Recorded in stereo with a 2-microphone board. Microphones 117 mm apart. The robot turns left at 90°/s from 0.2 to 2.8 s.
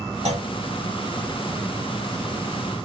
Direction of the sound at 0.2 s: 65° right (ahead or behind).